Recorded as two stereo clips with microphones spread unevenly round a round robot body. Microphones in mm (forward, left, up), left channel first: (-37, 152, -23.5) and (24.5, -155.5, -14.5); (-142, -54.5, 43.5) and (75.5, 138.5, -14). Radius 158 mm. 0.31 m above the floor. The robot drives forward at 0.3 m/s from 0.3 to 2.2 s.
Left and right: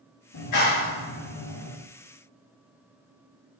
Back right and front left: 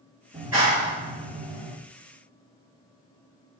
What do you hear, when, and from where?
0.3 s a clap: 120° left, 4 m; by 1.7 s 125° left, 4.5 m